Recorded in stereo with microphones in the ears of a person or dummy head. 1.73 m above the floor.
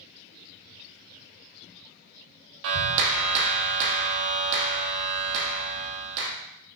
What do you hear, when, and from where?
2.6 s a clap: 65° right (ahead or behind), 1.4 m